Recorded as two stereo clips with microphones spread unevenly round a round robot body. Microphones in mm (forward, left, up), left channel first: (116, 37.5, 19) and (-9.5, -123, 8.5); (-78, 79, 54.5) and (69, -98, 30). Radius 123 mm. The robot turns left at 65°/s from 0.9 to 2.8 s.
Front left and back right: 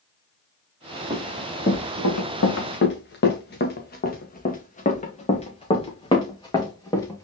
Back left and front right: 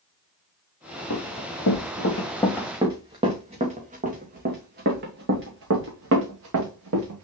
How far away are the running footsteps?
About 2.5 m.